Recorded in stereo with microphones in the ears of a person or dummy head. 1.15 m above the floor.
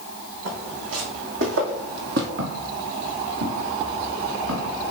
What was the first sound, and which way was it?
Footsteps, 75° right (ahead or behind).